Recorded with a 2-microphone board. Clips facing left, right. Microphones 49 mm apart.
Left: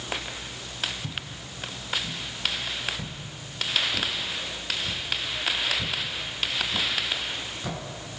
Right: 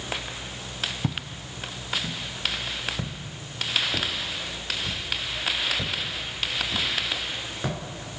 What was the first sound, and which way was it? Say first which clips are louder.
Footsteps: right 4 dB; 80° right.